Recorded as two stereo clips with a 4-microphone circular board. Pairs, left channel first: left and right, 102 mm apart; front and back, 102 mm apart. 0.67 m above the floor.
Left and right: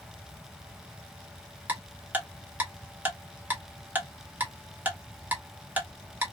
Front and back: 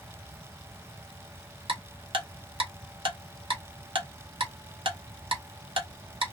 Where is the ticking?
160° right, 1.0 m.